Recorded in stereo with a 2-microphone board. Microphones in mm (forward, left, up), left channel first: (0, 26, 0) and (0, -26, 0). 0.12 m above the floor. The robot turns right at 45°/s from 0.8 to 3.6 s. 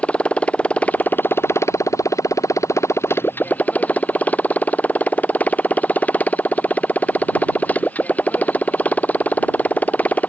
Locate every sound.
0.0 s a motorcycle: 25° left; by 10.3 s 150° left